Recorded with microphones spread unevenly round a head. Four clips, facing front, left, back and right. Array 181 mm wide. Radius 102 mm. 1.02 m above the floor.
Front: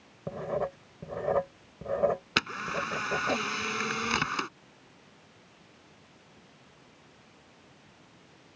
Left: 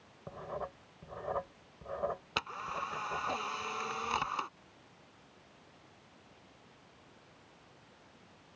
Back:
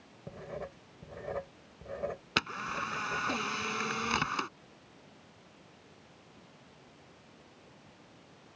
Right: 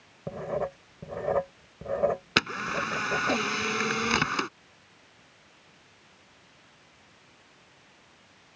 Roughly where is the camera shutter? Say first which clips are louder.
Right 9 dB, front 3 dB; right.